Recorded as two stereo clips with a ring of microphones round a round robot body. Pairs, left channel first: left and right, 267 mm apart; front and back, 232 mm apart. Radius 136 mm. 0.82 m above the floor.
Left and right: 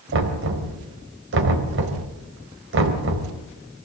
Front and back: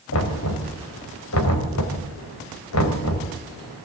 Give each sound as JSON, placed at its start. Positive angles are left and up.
{"t": 0.1, "sound": "knocking", "azimuth_deg": -40, "distance_m": 3.5}